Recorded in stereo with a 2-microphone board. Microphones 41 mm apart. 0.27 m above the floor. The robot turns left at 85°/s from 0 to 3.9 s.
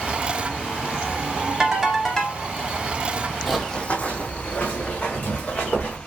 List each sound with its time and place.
1.6 s a ringtone: 150° right, 0.7 m; by 2.4 s 140° left, 0.7 m
3.5 s running footsteps: 5° right (ahead or behind), 0.5 m; by 6.0 s 45° left (ahead or behind), 1.9 m